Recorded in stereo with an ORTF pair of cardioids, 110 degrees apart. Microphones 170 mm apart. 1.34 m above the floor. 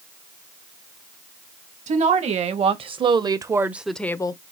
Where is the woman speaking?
45° right, 1.6 m; by 4.4 s 30° left, 0.5 m.